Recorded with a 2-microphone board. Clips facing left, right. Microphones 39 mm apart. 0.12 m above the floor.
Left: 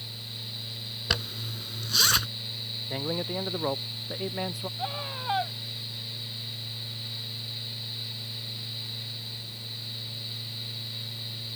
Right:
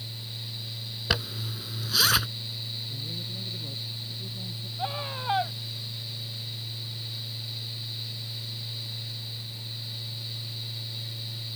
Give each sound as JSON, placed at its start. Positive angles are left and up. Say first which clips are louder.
{"t": 1.1, "sound": "a zipper", "louder": "right 1 dB", "side_deg": -5}
{"t": 2.9, "sound": "a man speaking", "louder": "left 6 dB", "side_deg": 80}
{"t": 4.8, "sound": "a scream", "louder": "right 4 dB", "side_deg": -5}